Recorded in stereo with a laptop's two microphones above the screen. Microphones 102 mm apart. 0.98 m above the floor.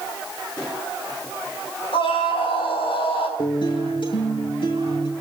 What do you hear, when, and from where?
1.9 s a scream: 70° left (ahead or behind), 6.5 m
3.4 s a guitar: 60° left (ahead or behind), 7 m